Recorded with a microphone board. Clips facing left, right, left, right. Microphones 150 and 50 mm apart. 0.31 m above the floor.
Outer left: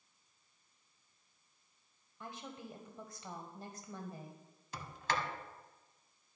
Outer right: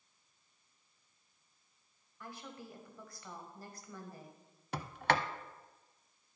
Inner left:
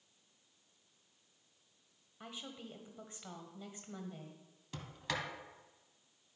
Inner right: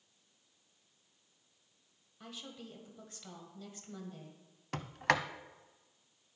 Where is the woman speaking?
20° left (ahead or behind), 1.4 m.